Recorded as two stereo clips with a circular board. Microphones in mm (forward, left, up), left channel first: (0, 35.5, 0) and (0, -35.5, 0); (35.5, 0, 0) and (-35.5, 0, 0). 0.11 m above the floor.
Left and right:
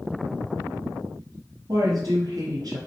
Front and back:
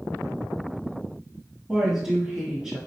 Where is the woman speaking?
110° right, 1.9 m.